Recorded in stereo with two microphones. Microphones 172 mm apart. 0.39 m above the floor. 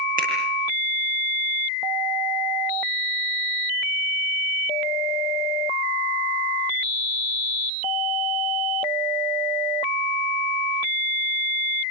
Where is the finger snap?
55° right (ahead or behind), 10 m.